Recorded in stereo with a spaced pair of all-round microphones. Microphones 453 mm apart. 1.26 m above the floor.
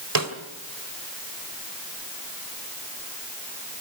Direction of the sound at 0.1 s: 45° right (ahead or behind).